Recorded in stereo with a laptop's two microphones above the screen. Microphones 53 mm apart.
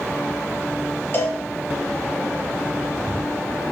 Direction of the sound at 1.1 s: 45° left (ahead or behind).